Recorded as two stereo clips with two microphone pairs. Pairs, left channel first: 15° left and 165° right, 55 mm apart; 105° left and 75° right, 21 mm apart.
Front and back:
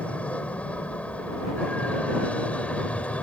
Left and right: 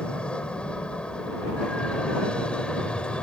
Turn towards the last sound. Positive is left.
turn(degrees=80)